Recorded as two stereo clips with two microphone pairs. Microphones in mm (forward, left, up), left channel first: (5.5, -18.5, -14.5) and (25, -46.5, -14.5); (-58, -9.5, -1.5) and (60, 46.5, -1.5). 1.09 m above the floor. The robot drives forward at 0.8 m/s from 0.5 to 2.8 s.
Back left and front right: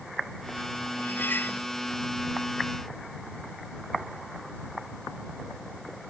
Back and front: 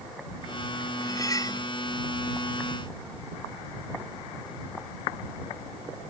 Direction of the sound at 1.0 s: 140° left.